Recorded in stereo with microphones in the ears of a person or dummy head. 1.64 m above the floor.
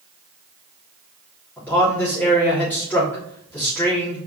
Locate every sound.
1.6 s a man speaking: 10° left (ahead or behind), 3.5 m